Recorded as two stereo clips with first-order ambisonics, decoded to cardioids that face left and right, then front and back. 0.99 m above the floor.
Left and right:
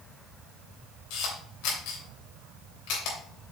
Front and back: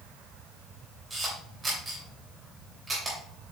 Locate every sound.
1.1 s a camera shutter: 100° left, 3 m